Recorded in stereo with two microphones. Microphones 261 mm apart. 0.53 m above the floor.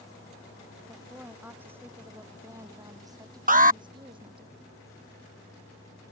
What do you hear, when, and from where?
0.9 s a woman speaking: 5° right (ahead or behind); by 4.5 s 20° right (ahead or behind)
3.5 s an alarm: 30° right (ahead or behind)